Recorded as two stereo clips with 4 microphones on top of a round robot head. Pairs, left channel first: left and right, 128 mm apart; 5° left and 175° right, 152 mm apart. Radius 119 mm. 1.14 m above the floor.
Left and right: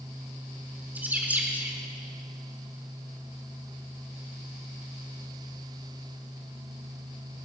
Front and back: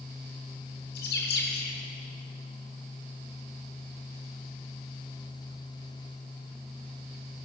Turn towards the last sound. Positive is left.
turn(degrees=-10)